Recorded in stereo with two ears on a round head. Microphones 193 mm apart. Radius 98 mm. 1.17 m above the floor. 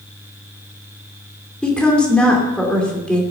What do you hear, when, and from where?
1.6 s a woman speaking: 5° left (ahead or behind), 2.5 m